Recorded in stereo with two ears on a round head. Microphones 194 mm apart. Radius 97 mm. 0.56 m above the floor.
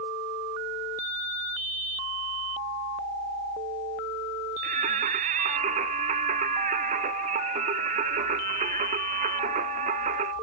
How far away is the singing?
About 0.9 m.